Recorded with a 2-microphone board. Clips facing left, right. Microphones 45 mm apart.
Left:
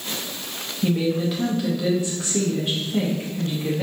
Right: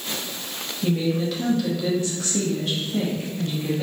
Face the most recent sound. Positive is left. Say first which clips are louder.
# left 1 dB
turn(degrees=20)  # may be behind; listen again after turning